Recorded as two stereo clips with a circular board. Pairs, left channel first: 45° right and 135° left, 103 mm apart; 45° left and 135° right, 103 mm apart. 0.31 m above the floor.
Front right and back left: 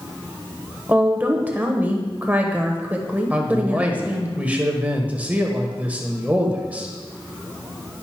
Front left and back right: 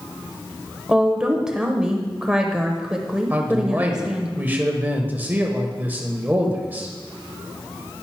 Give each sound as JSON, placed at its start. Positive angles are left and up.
{"t": 0.9, "sound": "a woman speaking", "azimuth_deg": 160, "distance_m": 0.9}
{"t": 3.3, "sound": "a man speaking", "azimuth_deg": -175, "distance_m": 1.0}